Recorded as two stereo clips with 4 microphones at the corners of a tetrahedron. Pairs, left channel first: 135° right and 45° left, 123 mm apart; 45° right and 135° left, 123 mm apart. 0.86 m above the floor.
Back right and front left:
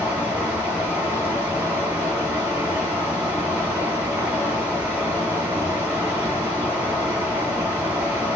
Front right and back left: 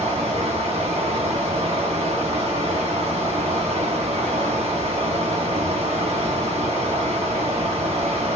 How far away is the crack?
I don't hear a crack.